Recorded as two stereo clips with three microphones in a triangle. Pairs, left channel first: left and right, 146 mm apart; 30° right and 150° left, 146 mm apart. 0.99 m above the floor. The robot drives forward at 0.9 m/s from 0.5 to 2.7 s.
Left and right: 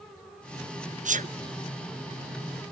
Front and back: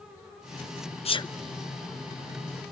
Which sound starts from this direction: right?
A sneeze, at 1.1 s.